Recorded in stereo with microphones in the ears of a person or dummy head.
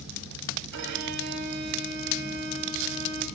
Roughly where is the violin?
Right.